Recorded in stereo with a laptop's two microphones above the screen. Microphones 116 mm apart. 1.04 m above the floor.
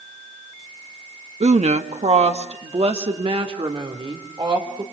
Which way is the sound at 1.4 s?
70° right (ahead or behind).